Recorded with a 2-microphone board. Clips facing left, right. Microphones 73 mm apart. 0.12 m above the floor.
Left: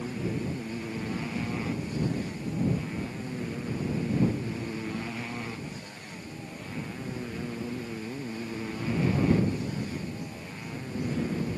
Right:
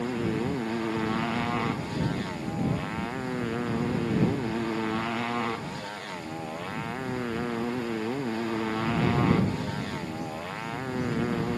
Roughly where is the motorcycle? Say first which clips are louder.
Right 4 dB; right.